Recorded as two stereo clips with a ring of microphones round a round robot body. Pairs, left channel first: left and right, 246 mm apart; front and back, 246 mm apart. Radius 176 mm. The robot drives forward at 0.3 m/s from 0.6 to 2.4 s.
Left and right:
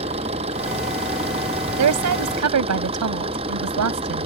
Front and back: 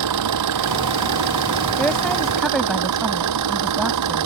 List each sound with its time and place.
0.0 s an engine running: 165° right
1.8 s a woman speaking: 85° right; by 4.2 s 90° right